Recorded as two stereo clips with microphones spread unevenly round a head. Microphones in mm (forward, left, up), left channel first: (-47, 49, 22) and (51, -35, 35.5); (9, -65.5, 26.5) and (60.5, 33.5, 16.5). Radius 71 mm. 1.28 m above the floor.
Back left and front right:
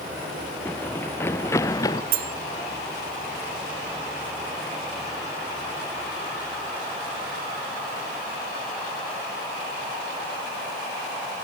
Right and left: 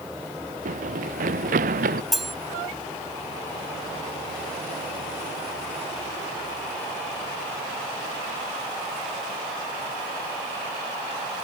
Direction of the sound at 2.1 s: 30° right.